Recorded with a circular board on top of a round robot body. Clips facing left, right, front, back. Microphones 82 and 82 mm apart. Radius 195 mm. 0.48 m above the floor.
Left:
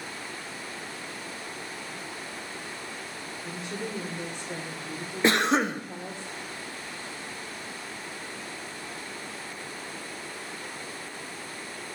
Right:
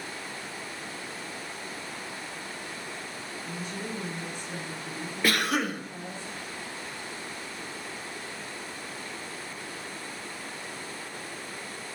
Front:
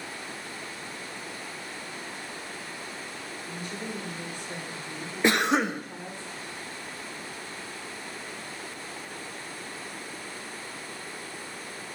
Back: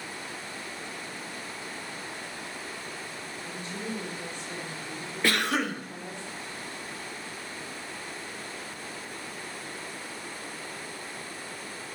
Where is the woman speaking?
80° left, 1.8 m.